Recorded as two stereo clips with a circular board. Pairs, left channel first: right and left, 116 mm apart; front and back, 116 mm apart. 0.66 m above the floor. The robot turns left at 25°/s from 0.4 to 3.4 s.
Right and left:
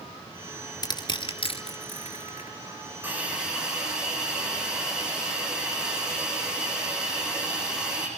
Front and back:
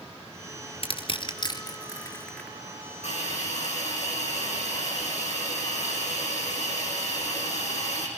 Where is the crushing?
35° right, 3.5 m; by 2.5 s 80° right, 3.5 m.